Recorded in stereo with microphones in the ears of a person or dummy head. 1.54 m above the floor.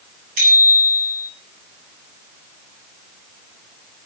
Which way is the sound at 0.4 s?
50° right (ahead or behind).